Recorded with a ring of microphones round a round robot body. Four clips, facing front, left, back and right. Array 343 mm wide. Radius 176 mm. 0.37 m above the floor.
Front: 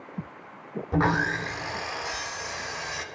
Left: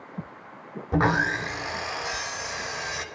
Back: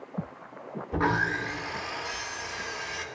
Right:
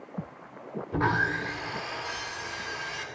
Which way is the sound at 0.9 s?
65° left.